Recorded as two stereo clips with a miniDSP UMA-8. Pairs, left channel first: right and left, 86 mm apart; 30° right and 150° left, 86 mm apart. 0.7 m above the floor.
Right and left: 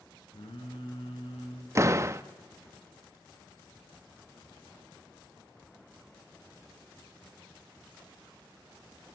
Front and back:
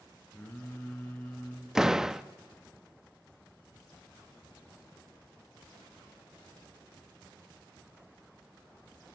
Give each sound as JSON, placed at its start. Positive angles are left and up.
{"t": 0.3, "sound": "singing", "azimuth_deg": -100, "distance_m": 5.0}
{"t": 1.8, "sound": "a door slam", "azimuth_deg": 70, "distance_m": 0.7}